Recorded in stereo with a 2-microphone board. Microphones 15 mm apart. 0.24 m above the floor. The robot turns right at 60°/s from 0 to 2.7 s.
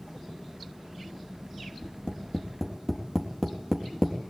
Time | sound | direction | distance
1.8 | tapping | 55° left (ahead or behind) | 4 m